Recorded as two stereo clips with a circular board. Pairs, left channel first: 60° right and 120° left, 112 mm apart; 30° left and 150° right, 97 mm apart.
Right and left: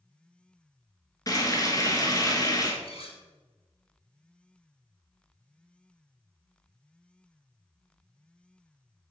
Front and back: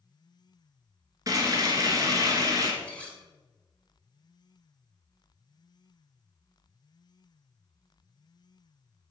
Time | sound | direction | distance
1.3 | frying | 110° right | 1.4 m
2.8 | cutlery clinking | 50° right | 1.6 m